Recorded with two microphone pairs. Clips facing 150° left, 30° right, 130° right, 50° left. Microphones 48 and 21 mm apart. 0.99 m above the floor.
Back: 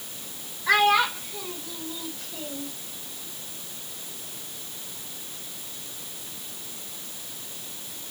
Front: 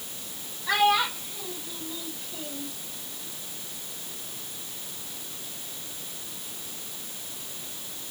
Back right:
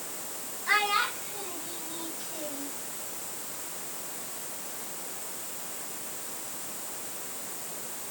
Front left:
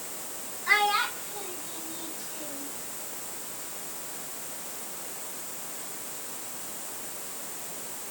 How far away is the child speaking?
About 3.5 m.